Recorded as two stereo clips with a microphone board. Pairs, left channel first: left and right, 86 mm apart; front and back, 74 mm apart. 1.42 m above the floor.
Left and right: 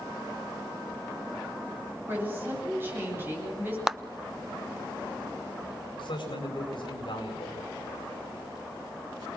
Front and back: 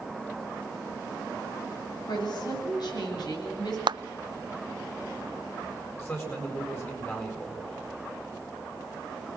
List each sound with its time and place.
2.1 s a woman speaking: 25° right, 8.5 m
3.9 s a clap: 175° right, 0.6 m
6.0 s a man speaking: 60° left, 8 m